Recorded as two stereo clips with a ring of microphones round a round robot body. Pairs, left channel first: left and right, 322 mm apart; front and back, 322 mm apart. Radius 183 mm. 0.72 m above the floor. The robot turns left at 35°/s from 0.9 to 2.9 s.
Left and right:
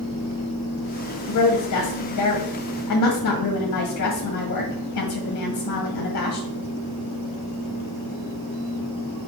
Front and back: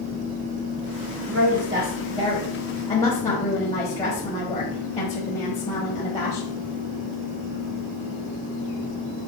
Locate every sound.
1.3 s a woman speaking: 125° left, 1.4 m; by 6.5 s 70° left, 1.4 m